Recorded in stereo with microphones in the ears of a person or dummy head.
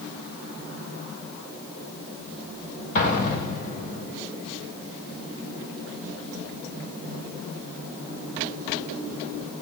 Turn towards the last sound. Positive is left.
turn(degrees=45)  # may be behind; listen again after turning